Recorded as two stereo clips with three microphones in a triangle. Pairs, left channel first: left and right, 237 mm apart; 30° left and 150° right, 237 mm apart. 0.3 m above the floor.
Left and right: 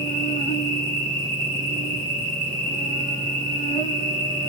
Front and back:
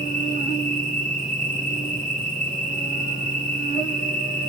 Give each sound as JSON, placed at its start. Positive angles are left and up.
{"t": 0.0, "sound": "an insect", "azimuth_deg": 65, "distance_m": 1.9}